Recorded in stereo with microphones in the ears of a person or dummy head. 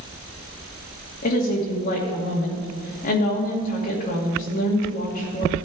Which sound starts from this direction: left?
A woman speaking, at 1.2 s.